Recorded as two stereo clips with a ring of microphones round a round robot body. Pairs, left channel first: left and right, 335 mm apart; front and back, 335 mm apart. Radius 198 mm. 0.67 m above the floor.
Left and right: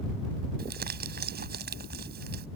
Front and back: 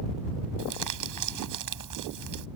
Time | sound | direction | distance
0.6 | crumpling | 155° right | ?